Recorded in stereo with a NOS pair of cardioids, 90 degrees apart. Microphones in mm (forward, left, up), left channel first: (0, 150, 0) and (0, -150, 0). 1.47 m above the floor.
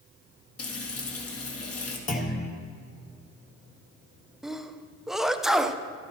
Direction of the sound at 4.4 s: Straight ahead.